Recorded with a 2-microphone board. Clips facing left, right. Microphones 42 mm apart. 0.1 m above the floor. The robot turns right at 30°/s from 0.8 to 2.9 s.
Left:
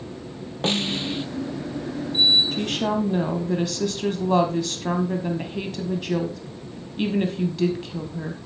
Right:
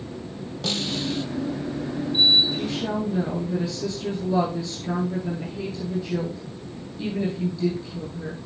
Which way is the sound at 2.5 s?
60° left (ahead or behind).